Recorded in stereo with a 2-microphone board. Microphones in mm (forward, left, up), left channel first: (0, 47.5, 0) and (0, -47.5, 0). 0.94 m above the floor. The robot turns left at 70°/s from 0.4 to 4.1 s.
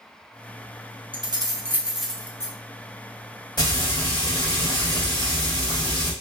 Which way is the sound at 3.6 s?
120° left.